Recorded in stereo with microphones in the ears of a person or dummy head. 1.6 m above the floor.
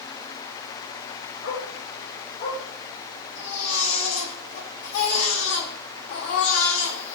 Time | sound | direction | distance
1.4 | a dog barking | 50° left (ahead or behind) | 8.5 m
3.4 | a baby crying | 50° left (ahead or behind) | 7 m